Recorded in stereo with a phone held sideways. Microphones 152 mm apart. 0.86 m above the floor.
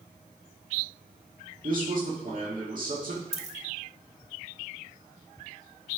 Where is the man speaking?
65° right (ahead or behind), 2.0 m.